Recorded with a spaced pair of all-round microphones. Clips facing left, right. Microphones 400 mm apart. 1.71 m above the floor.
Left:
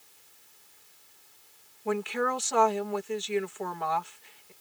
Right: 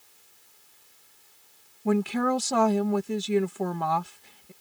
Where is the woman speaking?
55° right (ahead or behind).